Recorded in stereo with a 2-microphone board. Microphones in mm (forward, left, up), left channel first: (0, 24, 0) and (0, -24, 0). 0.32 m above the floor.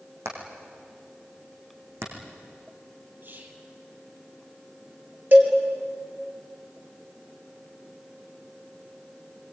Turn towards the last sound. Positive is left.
turn(degrees=-50)  # may be behind; listen again after turning